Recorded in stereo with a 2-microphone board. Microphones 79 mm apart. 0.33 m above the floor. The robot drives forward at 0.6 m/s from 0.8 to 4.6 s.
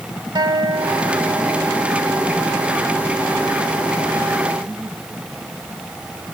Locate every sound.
0.3 s a guitar: 60° right (ahead or behind), 1.9 m